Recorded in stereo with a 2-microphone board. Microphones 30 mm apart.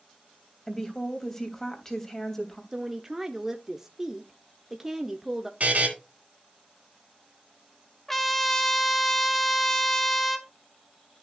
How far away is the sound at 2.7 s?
About 0.9 m.